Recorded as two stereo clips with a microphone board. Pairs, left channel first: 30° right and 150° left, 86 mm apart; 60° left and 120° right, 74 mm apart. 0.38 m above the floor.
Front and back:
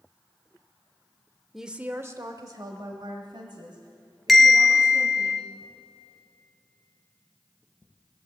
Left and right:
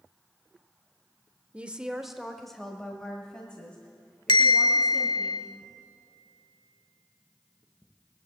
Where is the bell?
60° left, 1.4 m.